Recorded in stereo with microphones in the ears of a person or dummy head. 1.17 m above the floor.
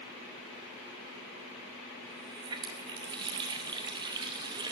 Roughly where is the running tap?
Right.